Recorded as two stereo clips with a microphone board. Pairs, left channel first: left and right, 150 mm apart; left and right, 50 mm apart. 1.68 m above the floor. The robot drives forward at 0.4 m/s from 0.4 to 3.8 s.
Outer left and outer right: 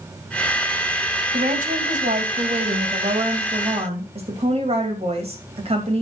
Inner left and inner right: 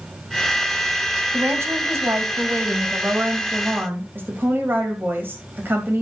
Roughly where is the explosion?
No explosion in this recording.